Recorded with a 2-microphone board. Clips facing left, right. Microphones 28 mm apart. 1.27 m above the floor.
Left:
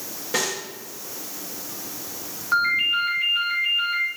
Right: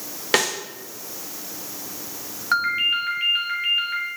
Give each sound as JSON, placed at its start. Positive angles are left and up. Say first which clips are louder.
{"t": 0.3, "sound": "a snare drum", "louder": "right 5 dB", "side_deg": -65, "distance_m": 1.3}
{"t": 2.5, "sound": "a ringtone", "louder": "even", "side_deg": -70, "distance_m": 3.0}